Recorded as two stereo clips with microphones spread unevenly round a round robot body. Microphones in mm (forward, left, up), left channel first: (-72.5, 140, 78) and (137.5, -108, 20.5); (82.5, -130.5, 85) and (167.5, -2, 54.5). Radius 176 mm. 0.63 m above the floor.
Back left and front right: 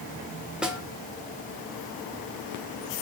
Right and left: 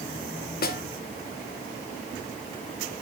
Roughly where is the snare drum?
Behind right.